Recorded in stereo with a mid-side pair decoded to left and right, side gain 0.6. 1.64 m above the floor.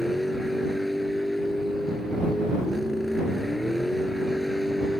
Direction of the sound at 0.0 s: 5° left.